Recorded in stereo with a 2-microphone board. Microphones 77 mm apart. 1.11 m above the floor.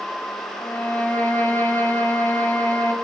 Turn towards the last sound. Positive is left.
turn(degrees=30)  # may be behind; listen again after turning